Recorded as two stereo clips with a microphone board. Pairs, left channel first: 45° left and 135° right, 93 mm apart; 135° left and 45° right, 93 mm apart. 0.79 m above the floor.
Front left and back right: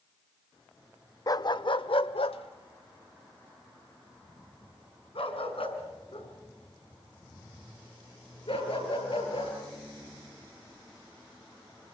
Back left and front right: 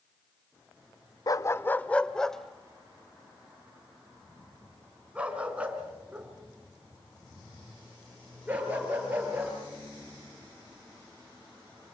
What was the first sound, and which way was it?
A dog barking, 90° left.